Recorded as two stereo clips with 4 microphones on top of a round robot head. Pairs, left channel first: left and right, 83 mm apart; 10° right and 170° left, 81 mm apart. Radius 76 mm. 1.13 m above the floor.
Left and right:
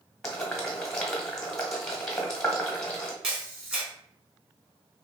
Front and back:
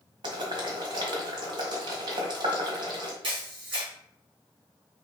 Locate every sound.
0.2 s boiling: 170° left, 1.1 m
3.2 s a camera shutter: 170° right, 2.5 m